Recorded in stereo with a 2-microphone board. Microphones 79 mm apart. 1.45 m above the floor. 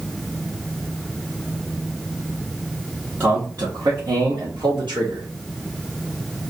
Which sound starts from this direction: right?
A man speaking, at 3.2 s.